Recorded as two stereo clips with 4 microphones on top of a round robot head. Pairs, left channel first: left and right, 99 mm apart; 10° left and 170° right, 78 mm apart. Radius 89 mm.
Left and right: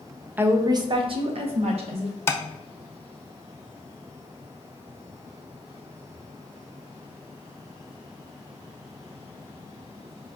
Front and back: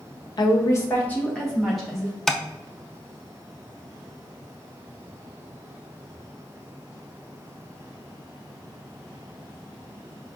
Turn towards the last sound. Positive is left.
turn(degrees=85)